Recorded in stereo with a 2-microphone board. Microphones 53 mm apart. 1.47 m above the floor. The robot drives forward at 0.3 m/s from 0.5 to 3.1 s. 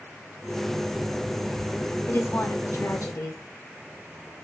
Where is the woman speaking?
50° left (ahead or behind), 0.6 m; by 3.4 s 75° left (ahead or behind), 0.5 m.